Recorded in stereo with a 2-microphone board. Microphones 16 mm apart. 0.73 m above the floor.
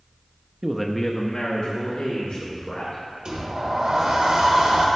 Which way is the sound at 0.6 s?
30° right (ahead or behind).